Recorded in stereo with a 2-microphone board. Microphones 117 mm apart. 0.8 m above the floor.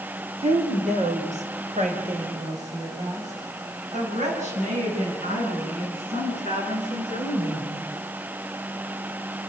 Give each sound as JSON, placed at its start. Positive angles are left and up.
{"t": 0.4, "sound": "a woman speaking", "side_deg": -65, "distance_m": 3.0}